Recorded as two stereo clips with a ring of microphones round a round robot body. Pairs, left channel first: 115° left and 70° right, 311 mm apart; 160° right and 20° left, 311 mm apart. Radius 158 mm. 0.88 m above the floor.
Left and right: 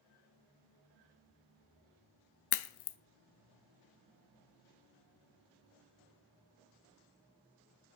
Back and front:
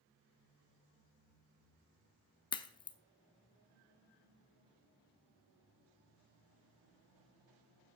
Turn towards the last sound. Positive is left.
turn(degrees=125)